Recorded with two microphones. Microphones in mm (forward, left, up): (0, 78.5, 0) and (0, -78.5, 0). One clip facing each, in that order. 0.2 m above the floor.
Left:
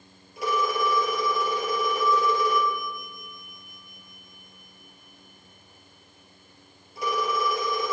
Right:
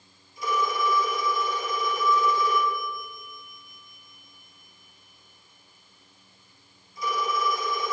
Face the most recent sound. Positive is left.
turn(degrees=70)  # may be behind; listen again after turning